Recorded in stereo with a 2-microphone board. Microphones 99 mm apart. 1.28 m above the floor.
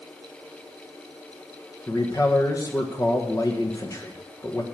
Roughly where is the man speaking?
Left.